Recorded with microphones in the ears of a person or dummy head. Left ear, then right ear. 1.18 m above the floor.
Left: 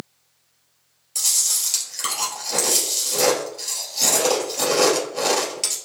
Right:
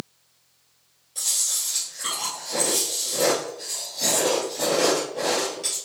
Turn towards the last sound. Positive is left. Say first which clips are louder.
# left 4 dB
turn(degrees=70)  # may be behind; listen again after turning